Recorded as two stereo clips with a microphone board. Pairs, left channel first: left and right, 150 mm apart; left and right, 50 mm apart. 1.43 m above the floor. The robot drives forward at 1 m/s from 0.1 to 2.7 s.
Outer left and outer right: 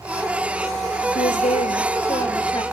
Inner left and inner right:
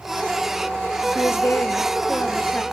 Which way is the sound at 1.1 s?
65° left (ahead or behind).